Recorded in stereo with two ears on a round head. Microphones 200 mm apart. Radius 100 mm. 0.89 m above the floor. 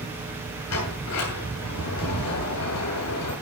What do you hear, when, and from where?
0.7 s a sliding door: 85° left, 8 m